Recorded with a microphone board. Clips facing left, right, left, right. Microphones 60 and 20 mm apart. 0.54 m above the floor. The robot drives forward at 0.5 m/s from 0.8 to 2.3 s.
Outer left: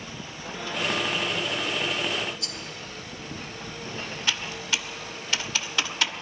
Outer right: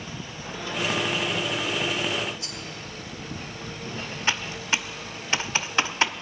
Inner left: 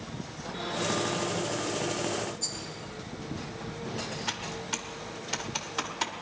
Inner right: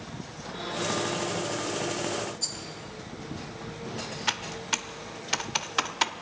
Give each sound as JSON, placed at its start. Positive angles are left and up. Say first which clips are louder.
{"t": 2.4, "sound": "a rattle", "louder": "even, inner right 2 dB", "side_deg": -25, "distance_m": 1.6}
{"t": 4.3, "sound": "typing on a keyboard", "louder": "outer right 3 dB, inner right 8 dB", "side_deg": -30, "distance_m": 0.6}